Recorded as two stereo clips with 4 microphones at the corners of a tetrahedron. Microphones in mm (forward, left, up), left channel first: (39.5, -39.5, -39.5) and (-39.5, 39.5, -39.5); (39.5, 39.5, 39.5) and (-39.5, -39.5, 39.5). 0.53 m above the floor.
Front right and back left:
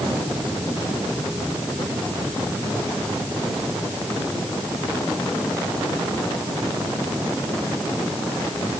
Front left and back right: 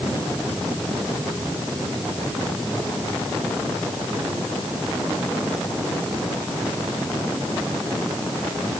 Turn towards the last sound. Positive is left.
No sound to turn to.